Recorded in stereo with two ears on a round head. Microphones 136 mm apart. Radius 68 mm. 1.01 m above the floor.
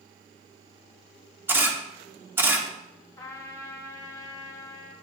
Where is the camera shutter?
15° right (ahead or behind), 1.2 m.